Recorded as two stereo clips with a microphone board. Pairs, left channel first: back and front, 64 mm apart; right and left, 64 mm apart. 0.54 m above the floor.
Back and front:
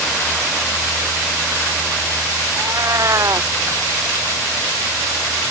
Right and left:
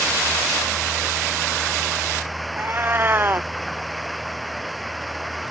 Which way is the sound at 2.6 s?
35° left.